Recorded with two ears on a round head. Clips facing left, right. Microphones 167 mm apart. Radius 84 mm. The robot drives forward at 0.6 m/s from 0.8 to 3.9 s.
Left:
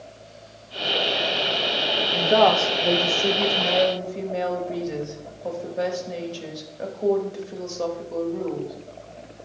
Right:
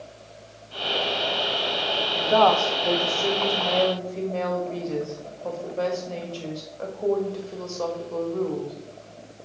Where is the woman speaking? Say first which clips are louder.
Left 1 dB; 25° left (ahead or behind), 0.7 m; by 8.8 s 15° left (ahead or behind), 1.4 m.